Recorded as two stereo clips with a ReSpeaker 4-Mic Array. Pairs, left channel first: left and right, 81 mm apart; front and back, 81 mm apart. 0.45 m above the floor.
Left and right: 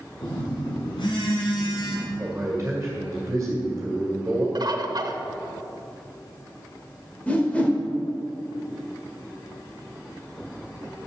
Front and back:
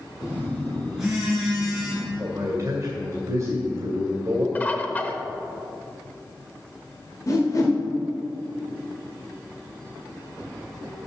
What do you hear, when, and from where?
0.2 s a phone buzzing: 95° left, 3 m
2.2 s a man speaking: 145° right, 2 m
4.5 s a bird: 65° right, 0.8 m
7.3 s a whoosh: 25° left, 1.9 m